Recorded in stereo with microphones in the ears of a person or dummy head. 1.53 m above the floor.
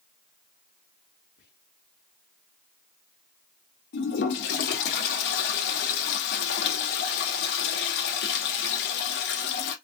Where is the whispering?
60° left (ahead or behind), 1.1 m.